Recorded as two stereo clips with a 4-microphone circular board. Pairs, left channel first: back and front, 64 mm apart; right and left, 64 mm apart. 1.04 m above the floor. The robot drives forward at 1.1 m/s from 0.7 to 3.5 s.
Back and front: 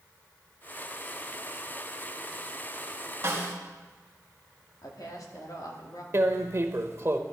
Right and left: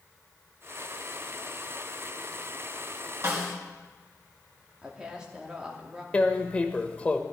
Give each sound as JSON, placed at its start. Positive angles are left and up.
{"t": 3.2, "sound": "a snare drum", "azimuth_deg": 50, "distance_m": 2.0}
{"t": 4.8, "sound": "a woman speaking", "azimuth_deg": 170, "distance_m": 2.5}
{"t": 6.1, "sound": "tearing paper", "azimuth_deg": -25, "distance_m": 1.0}